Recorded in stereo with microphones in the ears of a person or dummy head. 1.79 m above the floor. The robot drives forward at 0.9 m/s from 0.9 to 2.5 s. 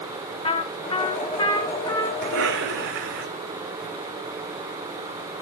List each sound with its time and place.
0.4 s a trumpet: 30° left (ahead or behind), 1.3 m; by 2.1 s 15° left (ahead or behind), 2 m
2.2 s a cough: 75° right (ahead or behind), 5.5 m; by 3.3 s 70° right (ahead or behind), 5.5 m